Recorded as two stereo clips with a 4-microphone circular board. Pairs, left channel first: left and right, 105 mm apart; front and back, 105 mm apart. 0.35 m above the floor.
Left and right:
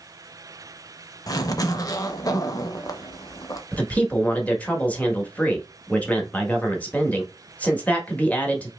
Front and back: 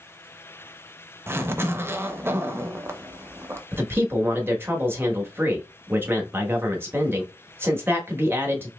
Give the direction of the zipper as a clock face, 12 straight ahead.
8 o'clock.